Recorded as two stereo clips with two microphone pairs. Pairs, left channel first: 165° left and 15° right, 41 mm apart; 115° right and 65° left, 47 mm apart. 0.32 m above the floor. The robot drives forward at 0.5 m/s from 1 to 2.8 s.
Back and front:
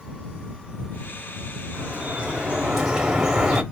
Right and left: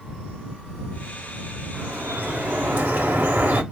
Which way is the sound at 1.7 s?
30° left.